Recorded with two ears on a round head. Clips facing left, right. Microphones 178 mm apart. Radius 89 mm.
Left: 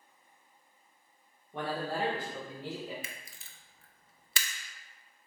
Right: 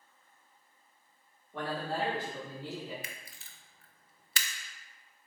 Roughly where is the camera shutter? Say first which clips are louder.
Even; left.